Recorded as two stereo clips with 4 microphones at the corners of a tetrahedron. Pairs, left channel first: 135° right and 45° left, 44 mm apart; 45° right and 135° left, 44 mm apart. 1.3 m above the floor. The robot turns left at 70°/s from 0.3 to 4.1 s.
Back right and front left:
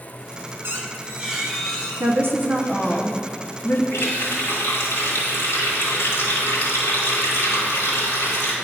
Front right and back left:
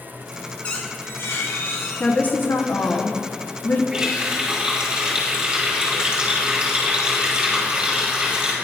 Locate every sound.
0.6 s a squeak: 15° left, 0.9 m; by 3.0 s 150° right, 0.9 m
2.0 s a woman speaking: 25° left, 0.6 m; by 3.8 s 100° right, 0.6 m
3.9 s a running tap: 140° right, 2.5 m; by 8.5 s 155° right, 2.5 m